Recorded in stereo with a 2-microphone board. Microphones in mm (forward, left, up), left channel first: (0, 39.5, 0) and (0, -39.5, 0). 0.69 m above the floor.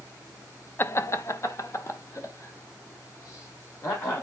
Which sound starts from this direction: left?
Laughter, at 0.8 s.